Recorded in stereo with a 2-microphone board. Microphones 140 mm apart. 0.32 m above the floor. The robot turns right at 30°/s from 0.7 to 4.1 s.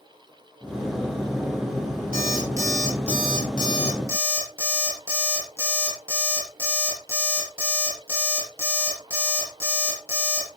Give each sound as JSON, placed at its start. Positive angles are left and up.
{"t": 2.1, "sound": "an alarm clock", "azimuth_deg": -80, "distance_m": 5.5}